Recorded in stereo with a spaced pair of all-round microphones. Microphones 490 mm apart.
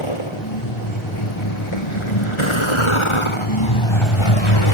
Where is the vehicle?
75° left (ahead or behind).